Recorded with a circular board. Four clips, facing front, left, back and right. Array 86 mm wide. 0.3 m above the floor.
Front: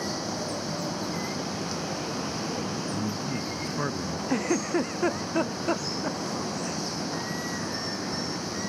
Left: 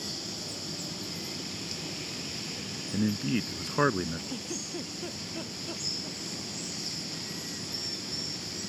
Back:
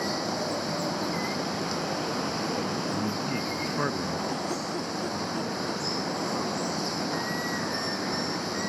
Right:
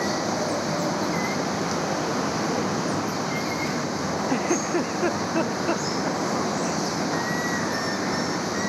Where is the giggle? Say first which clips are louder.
Right 15 dB, front 5 dB; 50° right.